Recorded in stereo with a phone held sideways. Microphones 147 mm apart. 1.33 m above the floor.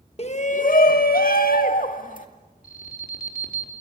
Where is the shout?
45° left (ahead or behind), 1.4 m; by 2.3 s 65° left (ahead or behind), 2.5 m.